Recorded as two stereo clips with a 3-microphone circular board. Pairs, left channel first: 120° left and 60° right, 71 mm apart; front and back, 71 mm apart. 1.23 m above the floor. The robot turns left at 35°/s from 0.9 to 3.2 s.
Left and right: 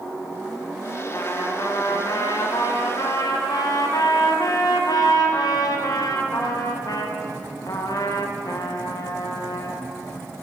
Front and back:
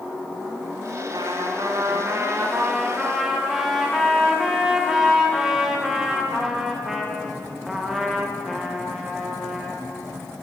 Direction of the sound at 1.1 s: 170° left.